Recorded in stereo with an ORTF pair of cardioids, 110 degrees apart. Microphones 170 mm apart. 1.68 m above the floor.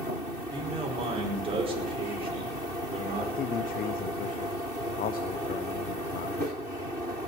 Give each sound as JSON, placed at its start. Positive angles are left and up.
{"t": 0.5, "sound": "a man speaking", "azimuth_deg": -35, "distance_m": 5.0}
{"t": 3.4, "sound": "a man speaking", "azimuth_deg": 60, "distance_m": 0.9}